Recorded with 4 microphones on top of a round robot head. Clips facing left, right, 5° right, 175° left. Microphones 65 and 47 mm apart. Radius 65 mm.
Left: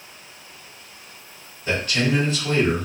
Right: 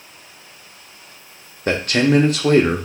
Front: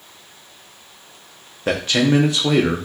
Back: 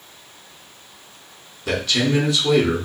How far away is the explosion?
I don't hear an explosion.